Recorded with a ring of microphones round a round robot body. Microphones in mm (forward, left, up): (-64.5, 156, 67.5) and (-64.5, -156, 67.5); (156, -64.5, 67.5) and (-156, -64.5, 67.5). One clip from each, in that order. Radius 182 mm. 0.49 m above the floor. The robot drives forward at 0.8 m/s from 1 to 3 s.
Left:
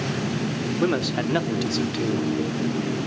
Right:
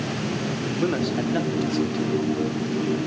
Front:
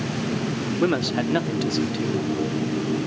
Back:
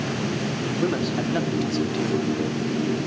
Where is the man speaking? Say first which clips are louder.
Left 2 dB, front 4 dB; 30° left, 1.7 m; by 2.3 s 90° left, 1.4 m.